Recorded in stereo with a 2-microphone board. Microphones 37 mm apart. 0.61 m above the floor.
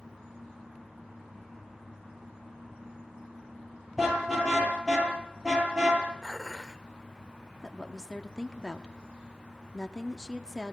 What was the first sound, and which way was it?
A car horn, centre (ahead or behind).